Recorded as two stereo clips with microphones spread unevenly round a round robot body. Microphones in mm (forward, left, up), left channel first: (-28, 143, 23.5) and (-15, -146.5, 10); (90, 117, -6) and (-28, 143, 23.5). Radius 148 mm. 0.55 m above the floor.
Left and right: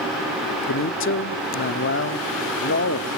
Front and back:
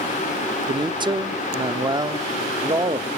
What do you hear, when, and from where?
0.7 s a man speaking: 115° left, 1.1 m